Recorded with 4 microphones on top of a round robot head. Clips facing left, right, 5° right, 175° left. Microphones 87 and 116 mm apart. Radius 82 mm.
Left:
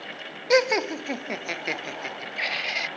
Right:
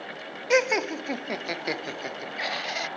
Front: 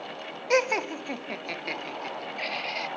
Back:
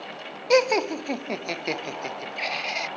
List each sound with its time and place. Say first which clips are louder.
0.5 s laughter: left 2 dB, back 5 dB; 155° left; by 2.9 s 145° right